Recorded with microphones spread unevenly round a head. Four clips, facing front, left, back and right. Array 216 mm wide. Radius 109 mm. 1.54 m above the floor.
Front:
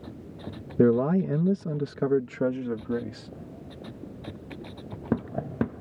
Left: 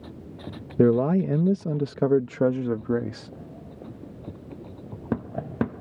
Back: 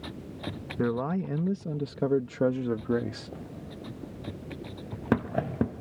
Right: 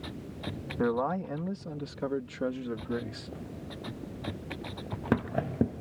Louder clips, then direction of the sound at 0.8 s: Left 9 dB, front 8 dB; 60° left.